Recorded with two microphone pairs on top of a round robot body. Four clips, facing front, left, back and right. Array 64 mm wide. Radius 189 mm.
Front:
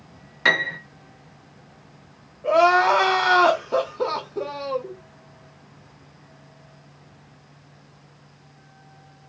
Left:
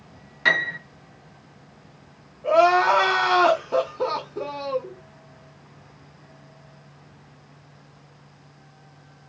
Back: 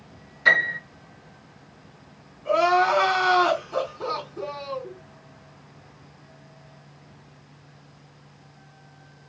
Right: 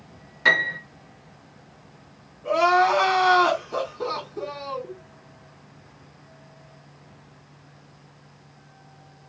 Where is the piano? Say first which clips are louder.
Right 1 dB, back 1 dB; straight ahead, 1.6 m.